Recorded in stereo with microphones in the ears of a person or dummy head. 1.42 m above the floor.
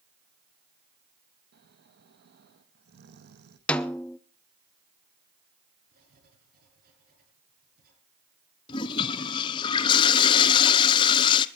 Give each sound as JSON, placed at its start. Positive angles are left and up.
{"t": 1.5, "sound": "snoring", "side_deg": -60, "distance_m": 1.4}
{"t": 3.7, "sound": "a snare drum", "side_deg": 10, "distance_m": 0.8}
{"t": 5.9, "sound": "writing", "side_deg": -50, "distance_m": 8.0}
{"t": 8.7, "sound": "a toilet flushing", "side_deg": 30, "distance_m": 0.9}